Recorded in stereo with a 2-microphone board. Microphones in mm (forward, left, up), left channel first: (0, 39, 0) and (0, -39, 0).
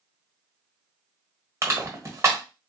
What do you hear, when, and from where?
1.6 s crushing: 40° right (ahead or behind), 1.2 m